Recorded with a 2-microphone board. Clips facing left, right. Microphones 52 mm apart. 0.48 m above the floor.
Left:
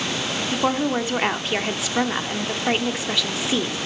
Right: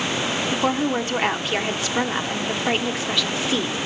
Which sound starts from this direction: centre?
A woman speaking, at 0.5 s.